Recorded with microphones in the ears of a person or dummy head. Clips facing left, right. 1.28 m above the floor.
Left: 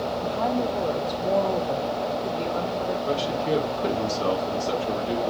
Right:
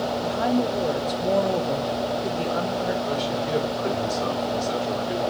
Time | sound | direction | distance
0.2 | a woman speaking | 15° right (ahead or behind) | 0.7 m
3.1 | a man speaking | 80° left | 3 m